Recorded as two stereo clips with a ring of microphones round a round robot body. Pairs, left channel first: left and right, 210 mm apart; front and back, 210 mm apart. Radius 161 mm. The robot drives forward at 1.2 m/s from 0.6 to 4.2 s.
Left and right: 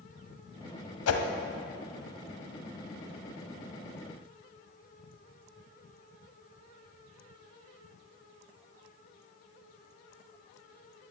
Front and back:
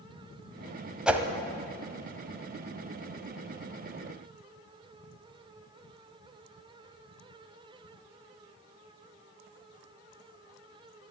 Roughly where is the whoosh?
Left.